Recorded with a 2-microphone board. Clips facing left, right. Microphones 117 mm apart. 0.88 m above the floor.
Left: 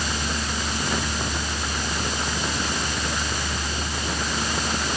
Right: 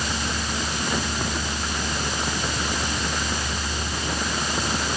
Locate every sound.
Only background noise.